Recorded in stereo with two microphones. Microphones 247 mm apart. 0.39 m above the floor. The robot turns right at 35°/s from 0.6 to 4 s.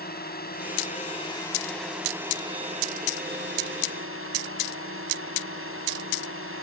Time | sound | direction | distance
0.0 | a drone | 135° left | ?